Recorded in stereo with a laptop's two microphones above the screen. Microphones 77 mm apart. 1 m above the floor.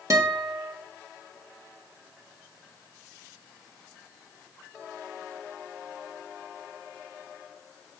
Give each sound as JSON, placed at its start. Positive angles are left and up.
{"t": 0.1, "sound": "a guitar", "side_deg": -45, "distance_m": 1.4}